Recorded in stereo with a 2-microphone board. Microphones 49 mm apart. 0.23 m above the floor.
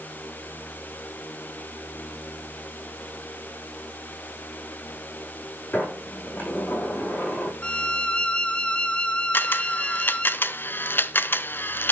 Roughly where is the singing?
I don't hear singing.